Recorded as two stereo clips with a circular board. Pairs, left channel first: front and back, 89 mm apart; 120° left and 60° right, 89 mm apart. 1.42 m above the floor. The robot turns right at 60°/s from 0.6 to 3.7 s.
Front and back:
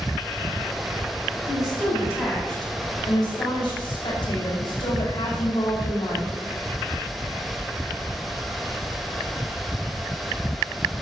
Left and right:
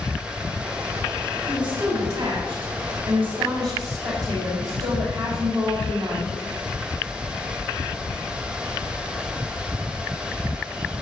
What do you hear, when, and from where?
1.5 s a woman speaking: 150° right, 5 m; by 6.3 s 15° right, 5 m